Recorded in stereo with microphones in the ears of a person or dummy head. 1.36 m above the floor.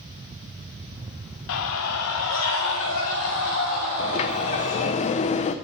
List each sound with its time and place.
1.5 s a scream: 70° left (ahead or behind), 1.0 m; by 5.0 s 65° left (ahead or behind), 5 m
4.0 s a sliding door: 30° left (ahead or behind), 0.5 m